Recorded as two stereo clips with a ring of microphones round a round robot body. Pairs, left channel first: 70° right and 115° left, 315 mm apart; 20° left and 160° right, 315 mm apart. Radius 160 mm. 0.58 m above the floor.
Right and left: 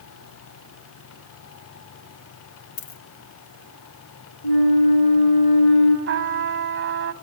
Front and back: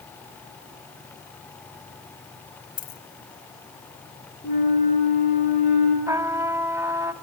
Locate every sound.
2.8 s a dropped coin: 40° right, 1.7 m
4.4 s a flute: 45° right, 7.5 m
6.1 s a trumpet: 125° left, 1.0 m